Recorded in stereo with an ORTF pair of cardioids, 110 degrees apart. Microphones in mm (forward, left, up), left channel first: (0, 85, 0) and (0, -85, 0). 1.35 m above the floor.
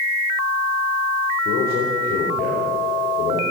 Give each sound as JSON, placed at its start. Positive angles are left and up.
{"t": 1.4, "sound": "a man speaking", "azimuth_deg": 60, "distance_m": 5.0}